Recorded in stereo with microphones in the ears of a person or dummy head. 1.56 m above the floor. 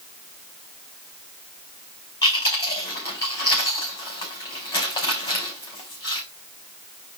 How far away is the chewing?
About 4.5 m.